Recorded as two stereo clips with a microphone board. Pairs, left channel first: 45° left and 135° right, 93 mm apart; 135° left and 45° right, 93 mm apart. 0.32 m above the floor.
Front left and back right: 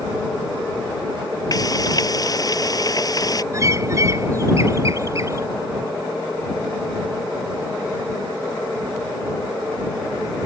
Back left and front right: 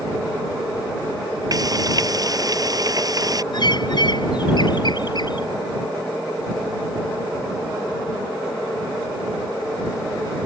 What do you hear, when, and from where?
1.5 s frying: straight ahead
3.5 s a bird: 170° left